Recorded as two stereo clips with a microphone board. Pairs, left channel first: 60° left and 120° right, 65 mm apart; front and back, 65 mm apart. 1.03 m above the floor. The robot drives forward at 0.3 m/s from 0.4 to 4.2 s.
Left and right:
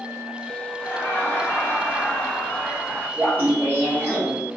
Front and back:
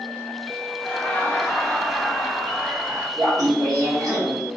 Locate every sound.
0.8 s laughter: 45° left, 0.9 m; by 3.1 s 120° left, 0.9 m
3.2 s laughter: straight behind, 1.1 m